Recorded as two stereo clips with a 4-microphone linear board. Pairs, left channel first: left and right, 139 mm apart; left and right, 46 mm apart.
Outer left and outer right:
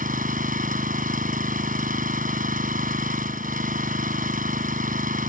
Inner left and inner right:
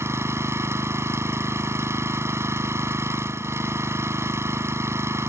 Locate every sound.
0.0 s an engine running: 80° right